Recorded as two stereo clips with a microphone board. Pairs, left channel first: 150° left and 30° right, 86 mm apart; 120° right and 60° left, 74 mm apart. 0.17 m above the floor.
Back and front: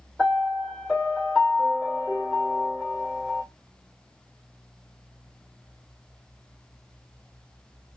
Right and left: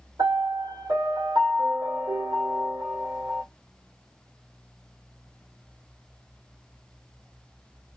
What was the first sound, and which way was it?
A piano, 60° left.